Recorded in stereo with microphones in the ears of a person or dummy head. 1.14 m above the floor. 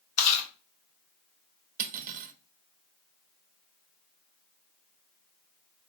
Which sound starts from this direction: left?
Chewing, at 0.2 s.